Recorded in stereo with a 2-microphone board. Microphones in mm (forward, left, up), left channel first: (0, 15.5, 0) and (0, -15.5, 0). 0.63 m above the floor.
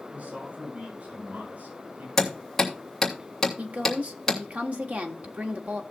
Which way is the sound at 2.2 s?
5° left (ahead or behind).